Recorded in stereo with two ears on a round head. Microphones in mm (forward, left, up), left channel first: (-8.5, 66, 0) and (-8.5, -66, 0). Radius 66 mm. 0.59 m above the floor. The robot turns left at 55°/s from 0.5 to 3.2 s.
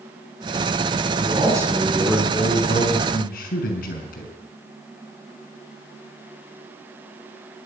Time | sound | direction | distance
1.2 | a man speaking | 140° right | 6 m